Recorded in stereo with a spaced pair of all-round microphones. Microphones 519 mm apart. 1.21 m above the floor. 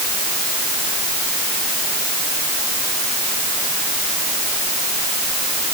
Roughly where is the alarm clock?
I don't hear an alarm clock.